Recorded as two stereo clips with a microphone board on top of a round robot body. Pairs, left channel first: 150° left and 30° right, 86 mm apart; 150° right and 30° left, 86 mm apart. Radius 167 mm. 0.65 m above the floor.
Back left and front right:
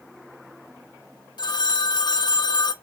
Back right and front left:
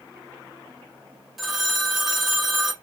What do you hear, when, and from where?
1.4 s a phone ringing: 120° left, 0.7 m